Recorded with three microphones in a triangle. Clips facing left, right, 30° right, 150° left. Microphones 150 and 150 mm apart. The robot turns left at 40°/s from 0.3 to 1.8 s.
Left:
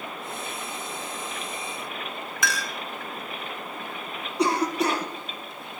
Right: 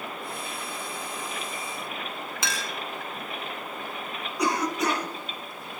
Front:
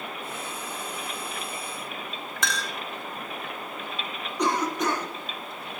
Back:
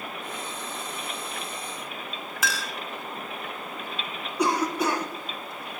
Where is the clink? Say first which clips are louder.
Left 5 dB, even; 130° right, 0.7 m.